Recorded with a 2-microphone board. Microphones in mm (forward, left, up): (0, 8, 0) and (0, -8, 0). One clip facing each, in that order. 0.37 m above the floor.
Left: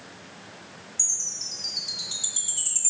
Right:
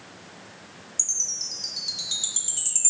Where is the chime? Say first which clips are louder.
Right 1 dB; 40° right (ahead or behind), 1.0 m.